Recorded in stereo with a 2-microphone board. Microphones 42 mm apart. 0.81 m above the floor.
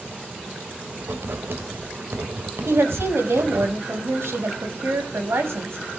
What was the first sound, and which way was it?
Writing, 70° right (ahead or behind).